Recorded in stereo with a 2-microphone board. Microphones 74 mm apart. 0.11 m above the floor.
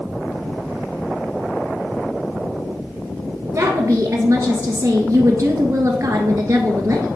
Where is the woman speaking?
40° right (ahead or behind), 1.4 m.